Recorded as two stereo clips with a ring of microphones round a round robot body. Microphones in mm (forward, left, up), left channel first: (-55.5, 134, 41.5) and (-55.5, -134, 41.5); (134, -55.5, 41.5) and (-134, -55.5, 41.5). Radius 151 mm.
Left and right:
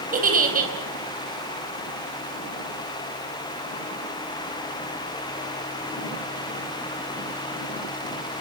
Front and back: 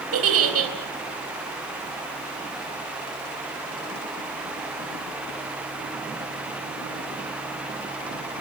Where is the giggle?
150° right, 4 m.